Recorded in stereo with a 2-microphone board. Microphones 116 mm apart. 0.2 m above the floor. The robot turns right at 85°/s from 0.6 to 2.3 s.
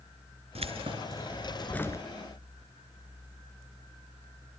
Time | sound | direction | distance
0.6 | keys jangling | 85° right | 2 m